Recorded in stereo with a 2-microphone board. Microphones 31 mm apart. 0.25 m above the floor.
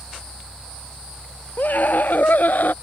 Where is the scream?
70° left (ahead or behind); by 2.7 s 65° left (ahead or behind).